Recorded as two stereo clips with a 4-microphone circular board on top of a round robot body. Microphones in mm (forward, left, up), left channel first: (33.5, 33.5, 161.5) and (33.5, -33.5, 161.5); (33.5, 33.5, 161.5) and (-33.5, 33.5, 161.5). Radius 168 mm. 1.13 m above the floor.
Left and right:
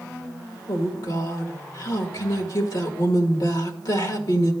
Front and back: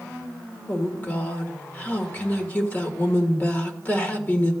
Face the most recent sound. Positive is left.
turn(degrees=65)